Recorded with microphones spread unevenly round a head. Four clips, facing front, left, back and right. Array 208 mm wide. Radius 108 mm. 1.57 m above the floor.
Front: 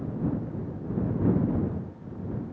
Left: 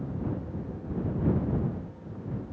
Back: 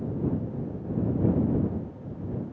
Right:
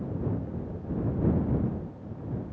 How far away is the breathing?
I don't hear breathing.